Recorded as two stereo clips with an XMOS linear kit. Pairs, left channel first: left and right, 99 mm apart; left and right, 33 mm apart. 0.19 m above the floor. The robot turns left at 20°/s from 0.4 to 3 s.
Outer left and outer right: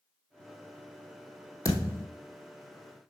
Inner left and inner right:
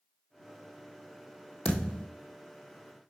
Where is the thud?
35° left (ahead or behind), 1.8 m; by 2.1 s 25° left (ahead or behind), 1.8 m.